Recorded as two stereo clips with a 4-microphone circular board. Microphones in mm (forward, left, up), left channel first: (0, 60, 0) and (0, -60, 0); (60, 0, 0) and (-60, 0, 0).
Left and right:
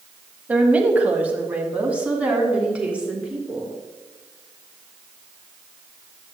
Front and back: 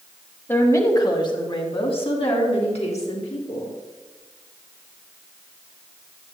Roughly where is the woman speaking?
Ahead right.